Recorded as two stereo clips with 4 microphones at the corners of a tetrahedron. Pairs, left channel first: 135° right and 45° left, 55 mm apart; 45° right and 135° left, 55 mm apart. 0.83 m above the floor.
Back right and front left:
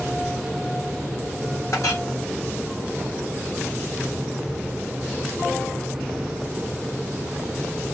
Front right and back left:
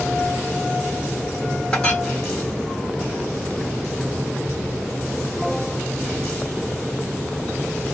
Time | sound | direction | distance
1.7 | a clink | 115° right | 1.5 m